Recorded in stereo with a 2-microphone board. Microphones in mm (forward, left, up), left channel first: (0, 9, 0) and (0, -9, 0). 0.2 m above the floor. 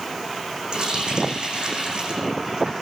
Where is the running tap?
55° right (ahead or behind), 7 m.